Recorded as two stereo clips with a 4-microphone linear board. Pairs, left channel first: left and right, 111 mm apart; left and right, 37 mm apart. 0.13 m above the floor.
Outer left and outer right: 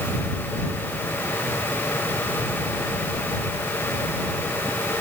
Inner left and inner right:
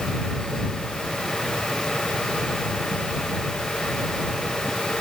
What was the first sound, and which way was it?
Only background noise.